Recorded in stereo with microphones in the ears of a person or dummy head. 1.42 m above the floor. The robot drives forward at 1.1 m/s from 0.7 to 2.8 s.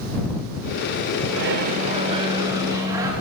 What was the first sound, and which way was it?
A microwave, 75° right (ahead or behind).